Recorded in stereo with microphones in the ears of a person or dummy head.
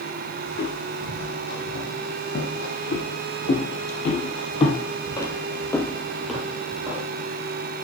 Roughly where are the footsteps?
Left.